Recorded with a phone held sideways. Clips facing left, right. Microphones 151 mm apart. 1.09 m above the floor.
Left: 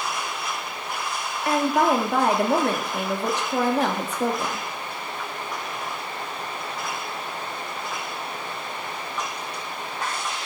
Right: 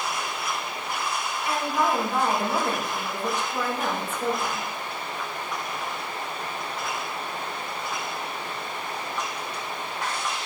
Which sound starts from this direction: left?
A woman speaking, at 1.4 s.